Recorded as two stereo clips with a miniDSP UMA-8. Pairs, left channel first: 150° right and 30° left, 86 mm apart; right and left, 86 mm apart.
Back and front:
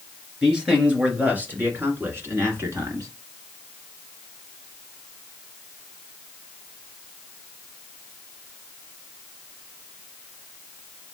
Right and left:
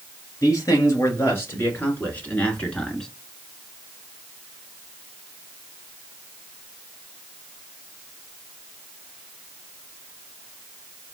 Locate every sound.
0.4 s a man speaking: 50° right, 2.5 m; by 3.1 s 5° right, 2 m